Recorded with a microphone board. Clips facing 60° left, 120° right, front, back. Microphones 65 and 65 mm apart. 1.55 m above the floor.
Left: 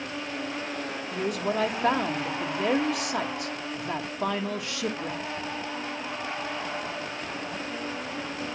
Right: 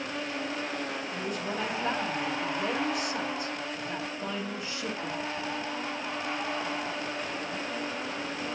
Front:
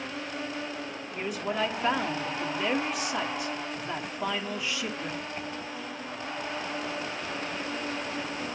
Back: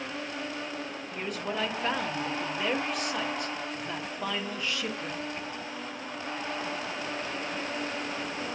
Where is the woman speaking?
85° left, 1.5 m.